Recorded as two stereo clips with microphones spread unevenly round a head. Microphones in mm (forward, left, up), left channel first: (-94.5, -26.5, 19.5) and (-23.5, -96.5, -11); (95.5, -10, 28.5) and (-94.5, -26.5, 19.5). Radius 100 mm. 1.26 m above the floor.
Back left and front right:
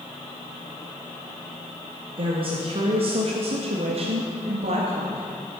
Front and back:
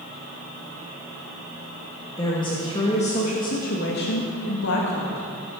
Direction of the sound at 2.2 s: 65° right.